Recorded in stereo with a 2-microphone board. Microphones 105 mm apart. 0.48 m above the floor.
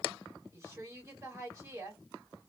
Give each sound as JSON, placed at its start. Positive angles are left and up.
{"t": 0.5, "sound": "a woman speaking", "side_deg": -30, "distance_m": 2.0}